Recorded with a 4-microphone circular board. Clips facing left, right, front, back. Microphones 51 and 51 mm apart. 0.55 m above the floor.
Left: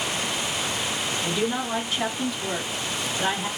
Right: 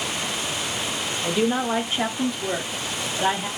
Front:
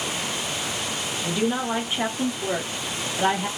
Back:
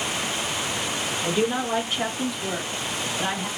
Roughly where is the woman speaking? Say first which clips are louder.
Right 6 dB, even; behind right.